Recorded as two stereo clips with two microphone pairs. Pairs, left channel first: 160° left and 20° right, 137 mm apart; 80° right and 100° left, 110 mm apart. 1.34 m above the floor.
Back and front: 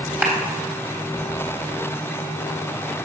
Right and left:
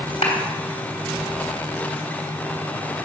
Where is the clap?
95° right, 3.5 m.